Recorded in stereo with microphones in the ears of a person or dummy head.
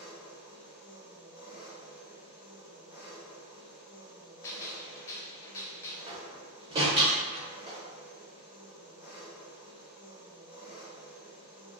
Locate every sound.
0.0 s an engine running: 65° left (ahead or behind), 1.8 m
4.4 s a gunshot: 10° left (ahead or behind), 0.6 m
6.1 s a door slam: 25° right (ahead or behind), 1.0 m